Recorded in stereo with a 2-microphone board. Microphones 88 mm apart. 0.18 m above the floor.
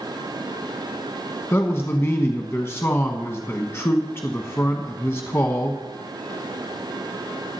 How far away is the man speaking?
About 1.1 m.